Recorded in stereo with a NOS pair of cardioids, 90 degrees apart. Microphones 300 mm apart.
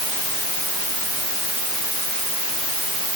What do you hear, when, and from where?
Only background noise.